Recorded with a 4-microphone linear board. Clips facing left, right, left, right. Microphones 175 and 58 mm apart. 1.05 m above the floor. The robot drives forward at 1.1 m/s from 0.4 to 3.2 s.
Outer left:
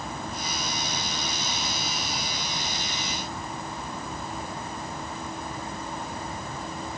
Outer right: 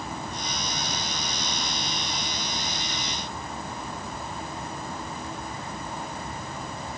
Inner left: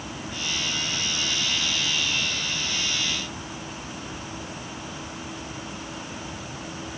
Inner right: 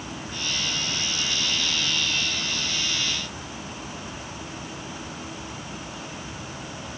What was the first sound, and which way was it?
Only background noise.